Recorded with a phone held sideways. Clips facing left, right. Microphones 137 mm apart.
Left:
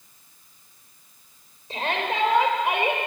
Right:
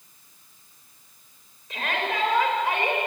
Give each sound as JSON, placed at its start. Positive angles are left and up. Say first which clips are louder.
{"t": 1.7, "sound": "a shout", "louder": "left 2 dB", "side_deg": 30, "distance_m": 6.0}